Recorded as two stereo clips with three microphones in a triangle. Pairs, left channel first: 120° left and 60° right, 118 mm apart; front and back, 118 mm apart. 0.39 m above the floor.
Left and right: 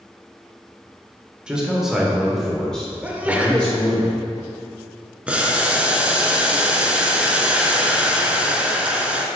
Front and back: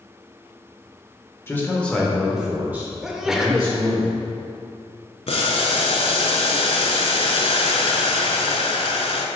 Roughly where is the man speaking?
Ahead.